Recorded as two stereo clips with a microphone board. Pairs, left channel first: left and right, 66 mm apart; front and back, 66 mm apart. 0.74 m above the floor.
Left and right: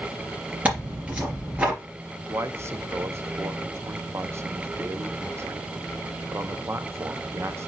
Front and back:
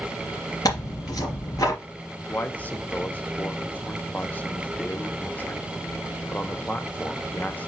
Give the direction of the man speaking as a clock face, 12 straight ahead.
2 o'clock.